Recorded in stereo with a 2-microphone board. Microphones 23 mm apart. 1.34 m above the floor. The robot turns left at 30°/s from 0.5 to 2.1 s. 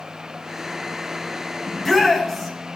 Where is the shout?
25° left (ahead or behind), 9 m; by 2.5 s 10° left (ahead or behind), 9 m.